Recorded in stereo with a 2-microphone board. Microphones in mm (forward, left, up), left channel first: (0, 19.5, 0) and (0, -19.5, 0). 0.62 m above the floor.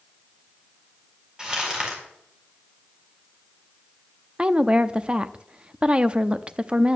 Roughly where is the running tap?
No running tap in this recording.